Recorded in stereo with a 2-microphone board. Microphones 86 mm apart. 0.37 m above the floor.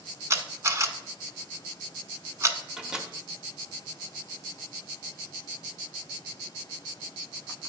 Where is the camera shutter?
35° right (ahead or behind), 0.7 m.